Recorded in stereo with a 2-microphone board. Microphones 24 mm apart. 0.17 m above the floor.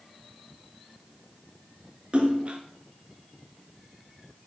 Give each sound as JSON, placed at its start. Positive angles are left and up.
{"t": 2.1, "sound": "a splash", "side_deg": -45, "distance_m": 3.0}